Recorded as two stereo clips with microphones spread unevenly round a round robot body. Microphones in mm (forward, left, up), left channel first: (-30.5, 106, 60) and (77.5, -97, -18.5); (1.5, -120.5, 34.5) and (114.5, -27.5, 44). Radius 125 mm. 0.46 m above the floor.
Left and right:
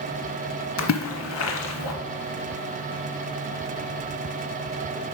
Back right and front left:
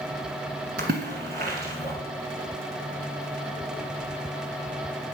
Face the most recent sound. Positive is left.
turn(degrees=90)